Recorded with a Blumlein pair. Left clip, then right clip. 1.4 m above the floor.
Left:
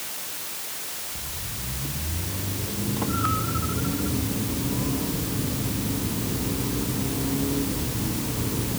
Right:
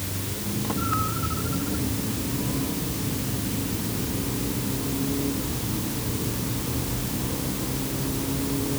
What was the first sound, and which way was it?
Only background noise.